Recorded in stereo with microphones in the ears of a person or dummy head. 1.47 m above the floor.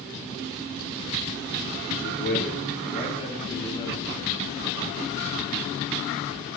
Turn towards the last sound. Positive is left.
turn(degrees=20)  # may be behind; listen again after turning